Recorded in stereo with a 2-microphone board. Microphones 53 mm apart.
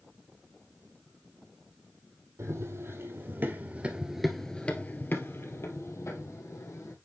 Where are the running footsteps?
60° right (ahead or behind), 2.5 m; by 7.0 s 70° left (ahead or behind), 3 m.